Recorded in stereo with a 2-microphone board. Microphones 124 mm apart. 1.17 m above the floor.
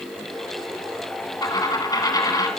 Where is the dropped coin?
30° left (ahead or behind), 1.8 m.